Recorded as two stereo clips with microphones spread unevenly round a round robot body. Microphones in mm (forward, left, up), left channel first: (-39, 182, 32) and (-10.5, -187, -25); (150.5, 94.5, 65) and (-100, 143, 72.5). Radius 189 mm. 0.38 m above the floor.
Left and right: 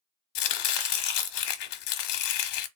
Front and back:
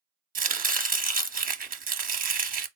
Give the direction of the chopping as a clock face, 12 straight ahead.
8 o'clock.